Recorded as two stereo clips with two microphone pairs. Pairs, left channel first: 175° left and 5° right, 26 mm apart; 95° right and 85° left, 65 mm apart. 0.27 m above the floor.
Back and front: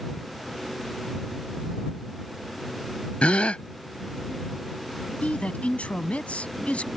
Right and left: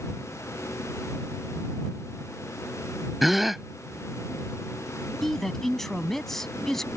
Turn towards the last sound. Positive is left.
turn(degrees=180)